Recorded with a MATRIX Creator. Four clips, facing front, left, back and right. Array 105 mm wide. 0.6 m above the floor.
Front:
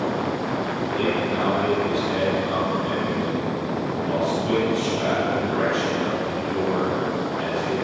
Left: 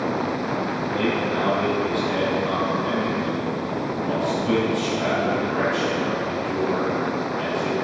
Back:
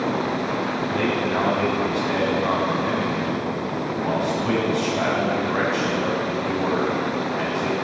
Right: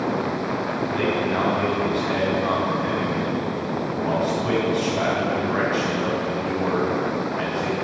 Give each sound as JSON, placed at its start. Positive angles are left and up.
{"t": 0.9, "sound": "a man speaking", "azimuth_deg": -140, "distance_m": 5.0}